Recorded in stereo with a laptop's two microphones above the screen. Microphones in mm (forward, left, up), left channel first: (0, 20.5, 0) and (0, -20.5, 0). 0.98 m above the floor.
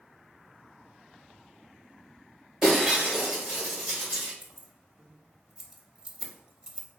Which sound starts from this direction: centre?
Breaking glass, at 2.6 s.